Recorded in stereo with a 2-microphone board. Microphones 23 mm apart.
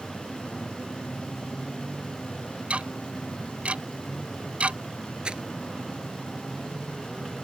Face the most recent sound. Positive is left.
turn(degrees=-45)  # may be behind; listen again after turning